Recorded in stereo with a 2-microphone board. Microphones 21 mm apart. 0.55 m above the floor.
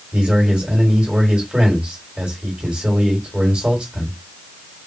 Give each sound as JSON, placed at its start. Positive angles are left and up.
{"t": 0.1, "sound": "a man speaking", "side_deg": -55, "distance_m": 1.9}